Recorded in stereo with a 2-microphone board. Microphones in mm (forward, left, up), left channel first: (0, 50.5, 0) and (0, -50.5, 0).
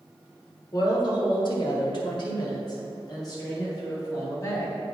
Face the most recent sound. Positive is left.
turn(degrees=30)  # may be behind; listen again after turning